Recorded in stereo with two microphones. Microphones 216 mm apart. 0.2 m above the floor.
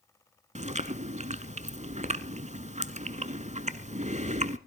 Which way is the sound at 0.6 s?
35° right (ahead or behind).